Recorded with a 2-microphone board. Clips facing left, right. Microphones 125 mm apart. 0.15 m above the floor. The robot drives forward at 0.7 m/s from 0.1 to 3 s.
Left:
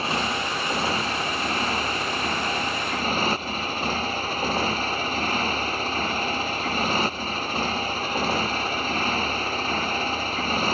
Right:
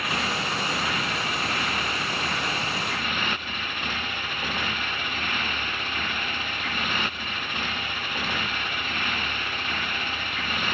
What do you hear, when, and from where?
0.0 s a motorcycle: 30° left (ahead or behind); by 10.8 s 35° left (ahead or behind)